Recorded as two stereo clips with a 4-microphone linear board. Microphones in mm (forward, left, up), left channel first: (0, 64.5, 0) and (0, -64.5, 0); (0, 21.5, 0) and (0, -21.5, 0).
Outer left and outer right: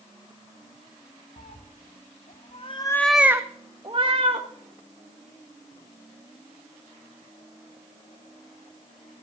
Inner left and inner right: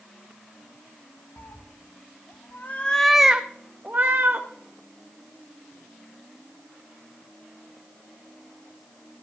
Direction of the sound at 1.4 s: 85° left.